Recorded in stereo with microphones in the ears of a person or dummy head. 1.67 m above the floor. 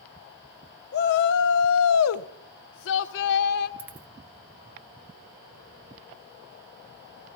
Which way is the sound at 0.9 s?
55° left (ahead or behind).